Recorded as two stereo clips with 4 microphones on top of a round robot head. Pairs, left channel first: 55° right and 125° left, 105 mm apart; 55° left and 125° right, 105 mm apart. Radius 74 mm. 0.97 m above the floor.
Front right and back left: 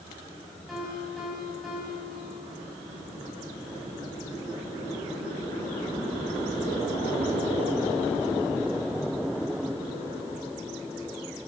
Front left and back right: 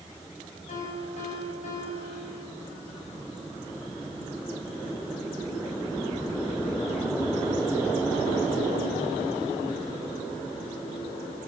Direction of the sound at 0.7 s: 35° left.